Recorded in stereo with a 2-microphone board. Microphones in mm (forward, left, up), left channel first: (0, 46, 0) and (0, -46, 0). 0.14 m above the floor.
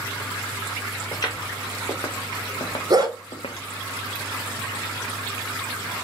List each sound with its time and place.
1.1 s footsteps: 45° left (ahead or behind), 1.6 m; by 3.7 s 75° left (ahead or behind), 0.6 m
2.9 s a dog barking: 45° right (ahead or behind), 0.7 m